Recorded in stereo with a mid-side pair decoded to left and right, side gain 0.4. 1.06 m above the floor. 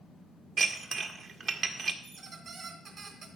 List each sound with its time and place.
0.6 s dishes clattering: 60° right, 1.3 m
2.0 s a squeak: 65° right, 2.5 m